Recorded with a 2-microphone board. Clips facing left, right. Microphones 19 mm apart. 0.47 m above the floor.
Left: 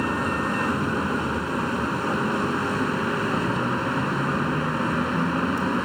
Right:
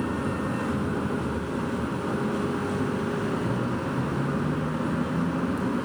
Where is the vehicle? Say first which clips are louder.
Left 4 dB; 70° left (ahead or behind).